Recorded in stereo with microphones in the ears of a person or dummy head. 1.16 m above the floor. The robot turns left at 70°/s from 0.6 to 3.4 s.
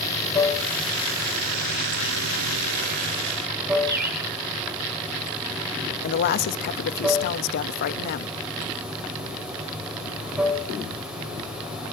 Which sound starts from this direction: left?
A woman speaking, at 6.0 s.